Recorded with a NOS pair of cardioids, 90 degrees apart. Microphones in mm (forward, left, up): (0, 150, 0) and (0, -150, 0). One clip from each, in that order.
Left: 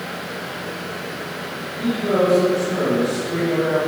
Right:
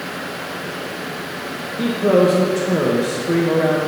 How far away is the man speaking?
About 1.9 m.